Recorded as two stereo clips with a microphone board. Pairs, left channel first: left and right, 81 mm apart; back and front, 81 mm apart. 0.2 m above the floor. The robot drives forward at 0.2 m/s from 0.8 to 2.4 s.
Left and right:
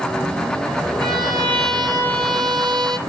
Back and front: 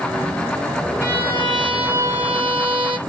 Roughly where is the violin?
Ahead right.